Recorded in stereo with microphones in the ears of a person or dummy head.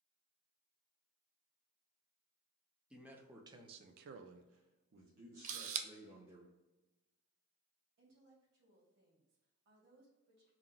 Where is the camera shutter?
45° right (ahead or behind), 0.5 m.